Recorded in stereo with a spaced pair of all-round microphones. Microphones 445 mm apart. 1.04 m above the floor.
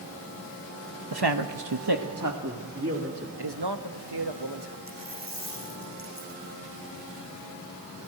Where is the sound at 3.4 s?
65° right (ahead or behind), 1.1 m.